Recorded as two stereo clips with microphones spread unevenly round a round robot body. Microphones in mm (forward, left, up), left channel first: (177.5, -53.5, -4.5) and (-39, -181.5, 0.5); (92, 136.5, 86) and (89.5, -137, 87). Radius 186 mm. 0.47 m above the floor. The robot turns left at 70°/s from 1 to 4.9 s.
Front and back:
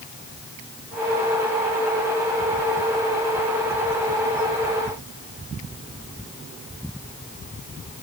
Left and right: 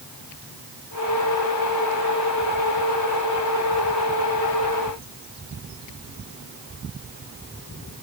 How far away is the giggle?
No giggle in this recording.